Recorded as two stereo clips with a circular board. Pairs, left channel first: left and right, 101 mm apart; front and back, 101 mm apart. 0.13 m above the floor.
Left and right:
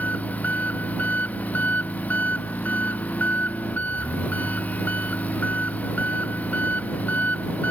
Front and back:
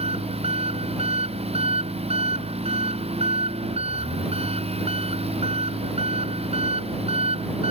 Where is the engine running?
165° left.